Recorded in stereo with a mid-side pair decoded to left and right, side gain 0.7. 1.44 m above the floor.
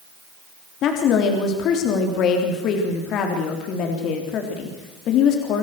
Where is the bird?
No bird in this recording.